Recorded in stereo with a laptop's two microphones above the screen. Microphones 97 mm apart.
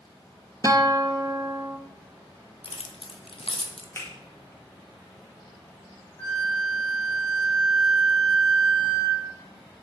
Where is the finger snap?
25° left (ahead or behind), 2 m.